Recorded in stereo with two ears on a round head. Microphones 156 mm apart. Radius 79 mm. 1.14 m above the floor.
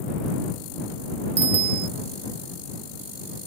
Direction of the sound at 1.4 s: 35° right (ahead or behind).